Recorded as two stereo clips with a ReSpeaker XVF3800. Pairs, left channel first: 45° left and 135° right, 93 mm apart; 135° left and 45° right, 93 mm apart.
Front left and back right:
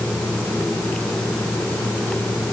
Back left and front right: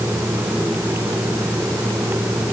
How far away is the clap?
I don't hear a clap.